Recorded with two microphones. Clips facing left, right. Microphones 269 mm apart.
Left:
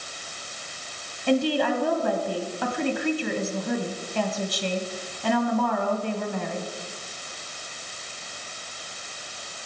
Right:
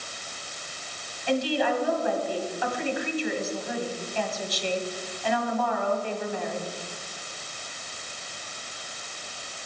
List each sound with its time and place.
1.3 s a woman speaking: 55° left (ahead or behind), 1.7 m